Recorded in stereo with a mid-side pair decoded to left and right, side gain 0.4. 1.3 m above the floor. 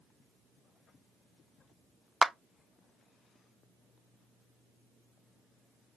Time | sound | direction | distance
2.2 | a clap | 15° right | 0.5 m